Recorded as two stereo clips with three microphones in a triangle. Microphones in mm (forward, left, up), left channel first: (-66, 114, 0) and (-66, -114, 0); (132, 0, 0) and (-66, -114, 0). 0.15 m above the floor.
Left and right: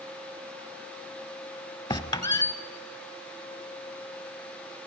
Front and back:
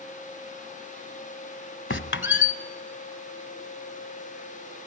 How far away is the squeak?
About 0.7 m.